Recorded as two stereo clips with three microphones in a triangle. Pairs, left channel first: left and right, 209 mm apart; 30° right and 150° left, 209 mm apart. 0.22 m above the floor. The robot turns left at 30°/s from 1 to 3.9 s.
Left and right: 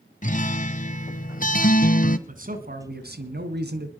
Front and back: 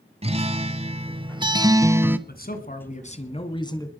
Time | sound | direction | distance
0.2 | a guitar | 110° left | 1.0 m
2.3 | a man speaking | 55° right | 2.5 m